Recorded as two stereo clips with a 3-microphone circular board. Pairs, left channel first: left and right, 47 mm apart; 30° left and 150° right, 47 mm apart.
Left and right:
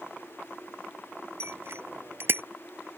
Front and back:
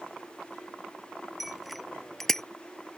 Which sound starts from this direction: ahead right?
A bicycle bell, at 1.4 s.